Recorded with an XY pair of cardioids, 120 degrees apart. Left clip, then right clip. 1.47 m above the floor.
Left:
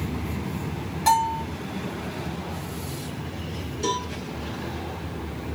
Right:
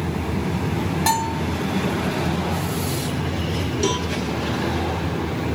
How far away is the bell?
About 1.8 m.